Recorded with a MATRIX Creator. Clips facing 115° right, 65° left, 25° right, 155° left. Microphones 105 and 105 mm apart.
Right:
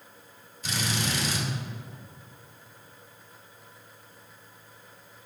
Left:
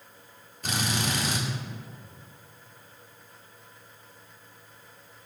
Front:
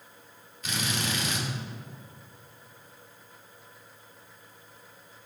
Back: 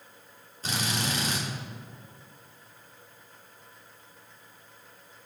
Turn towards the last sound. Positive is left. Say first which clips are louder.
# left 1 dB, back 1 dB
turn(degrees=105)